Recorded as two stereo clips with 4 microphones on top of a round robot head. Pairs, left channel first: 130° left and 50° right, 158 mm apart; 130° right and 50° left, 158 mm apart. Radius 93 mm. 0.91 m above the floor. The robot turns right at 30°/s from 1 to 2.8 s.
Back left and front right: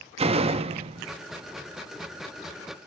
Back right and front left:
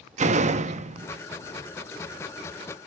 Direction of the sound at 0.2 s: 5° left.